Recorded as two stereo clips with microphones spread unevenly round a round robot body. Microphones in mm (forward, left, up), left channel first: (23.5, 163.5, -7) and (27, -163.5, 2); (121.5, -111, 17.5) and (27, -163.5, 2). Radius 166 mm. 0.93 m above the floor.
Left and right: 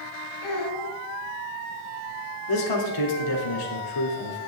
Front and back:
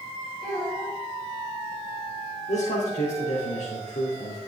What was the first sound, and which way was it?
A child speaking, 125° left.